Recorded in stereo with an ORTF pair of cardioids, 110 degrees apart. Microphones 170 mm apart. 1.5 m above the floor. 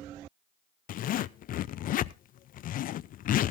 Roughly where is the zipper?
Ahead left.